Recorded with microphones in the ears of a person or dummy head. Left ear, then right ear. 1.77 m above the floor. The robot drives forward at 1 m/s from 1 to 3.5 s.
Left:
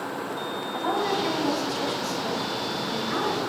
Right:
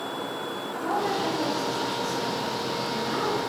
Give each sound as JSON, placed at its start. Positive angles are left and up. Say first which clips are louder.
{"t": 0.7, "sound": "a woman speaking", "louder": "left 1 dB", "side_deg": 55, "distance_m": 2.0}